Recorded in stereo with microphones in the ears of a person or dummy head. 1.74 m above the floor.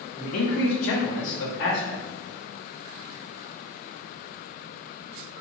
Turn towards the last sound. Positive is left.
turn(degrees=60)  # may be behind; listen again after turning